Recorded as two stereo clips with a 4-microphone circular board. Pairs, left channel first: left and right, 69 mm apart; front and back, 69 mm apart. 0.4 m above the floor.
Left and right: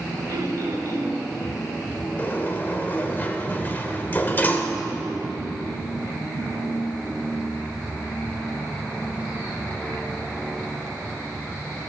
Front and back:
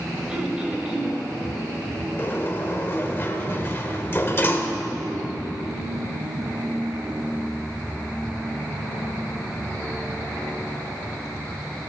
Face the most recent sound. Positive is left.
turn(degrees=40)